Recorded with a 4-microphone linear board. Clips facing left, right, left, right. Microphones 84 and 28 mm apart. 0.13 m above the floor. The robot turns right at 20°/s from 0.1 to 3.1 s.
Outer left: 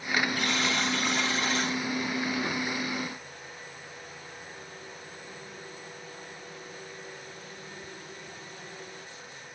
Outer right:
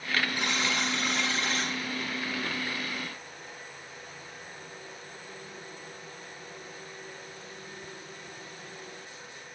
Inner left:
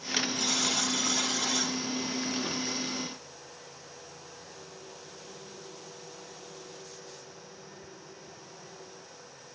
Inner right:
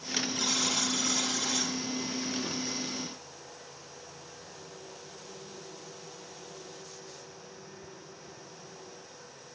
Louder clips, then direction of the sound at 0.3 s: Outer left 1 dB, inner right 2 dB; 15° right (ahead or behind).